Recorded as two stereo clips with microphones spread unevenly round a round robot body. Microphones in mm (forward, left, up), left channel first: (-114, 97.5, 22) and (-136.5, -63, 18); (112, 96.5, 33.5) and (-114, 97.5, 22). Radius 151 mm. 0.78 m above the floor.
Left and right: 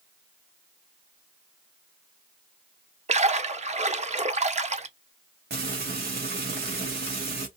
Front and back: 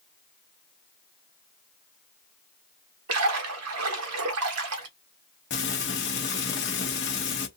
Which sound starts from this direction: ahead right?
Frying, at 5.5 s.